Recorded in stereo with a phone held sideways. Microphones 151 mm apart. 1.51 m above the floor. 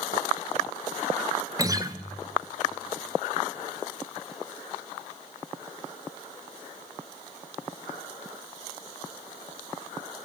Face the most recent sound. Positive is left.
turn(degrees=-25)  # may be behind; listen again after turning